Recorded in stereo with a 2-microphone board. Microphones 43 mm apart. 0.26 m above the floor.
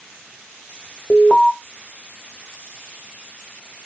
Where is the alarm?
20° left (ahead or behind), 0.7 m.